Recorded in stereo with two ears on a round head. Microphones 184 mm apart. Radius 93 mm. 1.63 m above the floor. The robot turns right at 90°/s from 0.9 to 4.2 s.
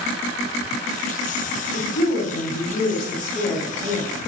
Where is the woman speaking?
20° left, 2.5 m; by 4.1 s 125° right, 2.5 m.